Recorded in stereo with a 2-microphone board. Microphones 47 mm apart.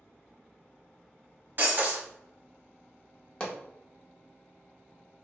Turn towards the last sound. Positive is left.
turn(degrees=20)  # may be behind; listen again after turning